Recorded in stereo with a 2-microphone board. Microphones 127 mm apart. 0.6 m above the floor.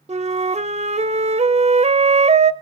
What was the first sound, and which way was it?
A flute, 60° right (ahead or behind).